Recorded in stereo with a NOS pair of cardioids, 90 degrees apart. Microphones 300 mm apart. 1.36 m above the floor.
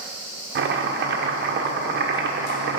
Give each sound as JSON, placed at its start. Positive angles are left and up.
{"t": 0.6, "sound": "chopping", "azimuth_deg": -40, "distance_m": 0.9}